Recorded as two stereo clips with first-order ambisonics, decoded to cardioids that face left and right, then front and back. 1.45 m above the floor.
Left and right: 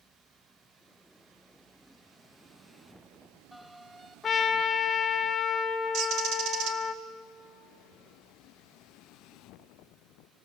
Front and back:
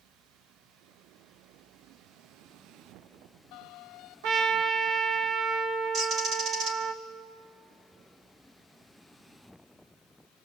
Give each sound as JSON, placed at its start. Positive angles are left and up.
{"t": 4.2, "sound": "a trumpet", "azimuth_deg": 165, "distance_m": 1.8}
{"t": 5.9, "sound": "a bird", "azimuth_deg": -125, "distance_m": 2.0}